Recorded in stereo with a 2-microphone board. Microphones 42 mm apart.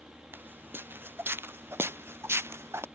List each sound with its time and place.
0.3 s footsteps: 55° right (ahead or behind); by 2.9 s 80° right